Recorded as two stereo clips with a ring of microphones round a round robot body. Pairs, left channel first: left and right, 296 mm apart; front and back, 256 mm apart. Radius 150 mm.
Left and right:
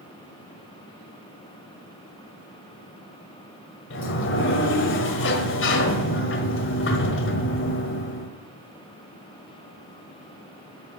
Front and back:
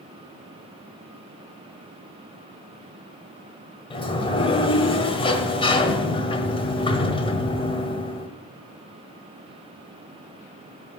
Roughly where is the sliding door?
Ahead left.